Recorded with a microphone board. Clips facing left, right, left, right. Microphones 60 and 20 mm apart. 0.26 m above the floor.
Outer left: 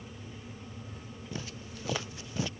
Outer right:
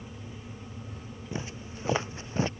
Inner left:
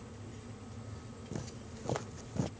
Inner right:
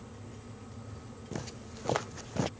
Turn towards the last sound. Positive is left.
turn(degrees=-40)  # may be behind; listen again after turning